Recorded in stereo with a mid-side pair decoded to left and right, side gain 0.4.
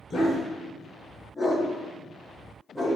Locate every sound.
0.1 s a dog barking: 50° left, 1.8 m; by 3.0 s 5° right, 2 m